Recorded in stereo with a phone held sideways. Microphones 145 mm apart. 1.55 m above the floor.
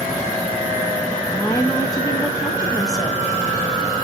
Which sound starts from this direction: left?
A woman speaking, at 1.3 s.